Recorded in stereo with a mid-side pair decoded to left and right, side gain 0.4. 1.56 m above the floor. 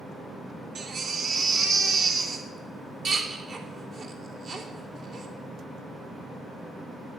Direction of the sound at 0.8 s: 65° right.